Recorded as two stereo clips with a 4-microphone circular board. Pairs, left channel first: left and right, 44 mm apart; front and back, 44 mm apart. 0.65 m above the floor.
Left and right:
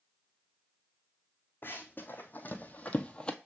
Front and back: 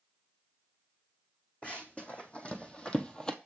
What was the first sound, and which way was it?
Running footsteps, 55° left.